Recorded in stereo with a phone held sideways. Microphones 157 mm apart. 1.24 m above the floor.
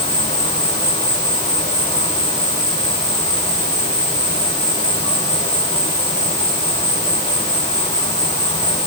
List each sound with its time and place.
0.0 s an insect: 40° left (ahead or behind), 9 m